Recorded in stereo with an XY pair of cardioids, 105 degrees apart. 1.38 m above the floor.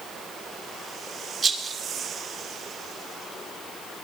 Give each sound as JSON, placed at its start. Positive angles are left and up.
{"t": 1.4, "sound": "a rattle", "azimuth_deg": -40, "distance_m": 2.5}